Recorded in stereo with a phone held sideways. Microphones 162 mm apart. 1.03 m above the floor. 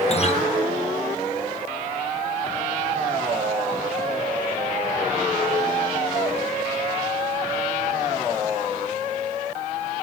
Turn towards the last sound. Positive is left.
turn(degrees=45)  # may be behind; listen again after turning